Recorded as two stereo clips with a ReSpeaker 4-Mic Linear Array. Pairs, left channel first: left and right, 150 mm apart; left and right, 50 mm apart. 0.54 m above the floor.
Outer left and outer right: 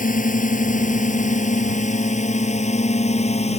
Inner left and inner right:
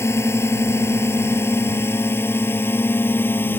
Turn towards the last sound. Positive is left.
turn(degrees=45)  # may be behind; listen again after turning